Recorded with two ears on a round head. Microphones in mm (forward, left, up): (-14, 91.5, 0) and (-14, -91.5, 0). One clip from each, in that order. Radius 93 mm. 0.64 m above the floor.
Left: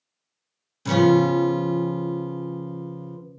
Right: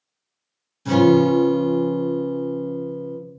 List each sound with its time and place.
0.8 s a guitar: 35° left (ahead or behind), 0.8 m